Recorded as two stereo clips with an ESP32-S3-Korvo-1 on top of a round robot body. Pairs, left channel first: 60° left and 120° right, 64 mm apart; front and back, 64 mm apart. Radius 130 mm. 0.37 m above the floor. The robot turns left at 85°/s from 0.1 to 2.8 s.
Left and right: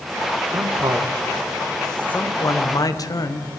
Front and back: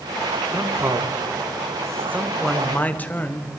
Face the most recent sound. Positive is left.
turn(degrees=60)